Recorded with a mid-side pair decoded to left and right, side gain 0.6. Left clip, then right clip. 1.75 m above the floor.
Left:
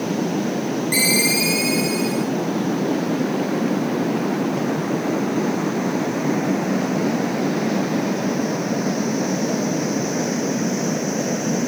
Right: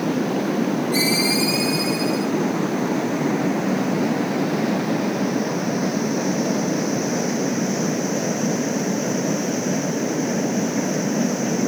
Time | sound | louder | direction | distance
0.9 | a ringtone | left 2 dB | 65° left | 7 m